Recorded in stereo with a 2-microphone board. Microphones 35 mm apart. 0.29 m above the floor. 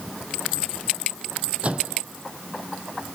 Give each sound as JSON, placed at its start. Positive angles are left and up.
{"t": 1.6, "sound": "a microwave", "side_deg": -35}